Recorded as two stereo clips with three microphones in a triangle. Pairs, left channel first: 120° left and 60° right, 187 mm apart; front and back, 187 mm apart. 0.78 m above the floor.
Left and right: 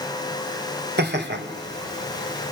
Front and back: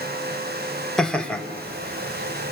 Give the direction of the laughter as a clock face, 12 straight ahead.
3 o'clock.